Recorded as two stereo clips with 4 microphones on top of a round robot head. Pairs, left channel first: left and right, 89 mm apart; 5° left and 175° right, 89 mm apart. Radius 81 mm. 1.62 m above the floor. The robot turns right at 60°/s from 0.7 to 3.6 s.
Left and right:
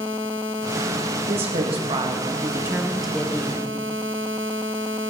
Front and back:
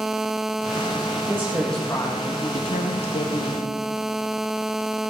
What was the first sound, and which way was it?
A woman speaking, 105° right.